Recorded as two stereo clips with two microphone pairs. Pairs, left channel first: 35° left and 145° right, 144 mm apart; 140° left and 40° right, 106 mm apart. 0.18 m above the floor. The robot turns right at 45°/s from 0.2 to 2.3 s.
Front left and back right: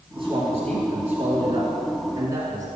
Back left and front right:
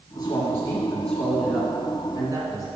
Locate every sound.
0.1 s a man speaking: straight behind, 2 m; by 2.7 s 85° right, 2 m